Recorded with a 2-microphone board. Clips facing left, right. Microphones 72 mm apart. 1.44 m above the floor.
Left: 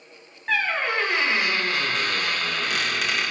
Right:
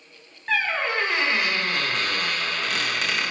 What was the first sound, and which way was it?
A squeak, centre (ahead or behind).